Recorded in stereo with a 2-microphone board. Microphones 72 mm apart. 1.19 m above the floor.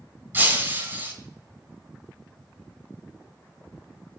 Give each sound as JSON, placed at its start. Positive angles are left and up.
{"t": 0.3, "sound": "breaking glass", "side_deg": -30, "distance_m": 2.5}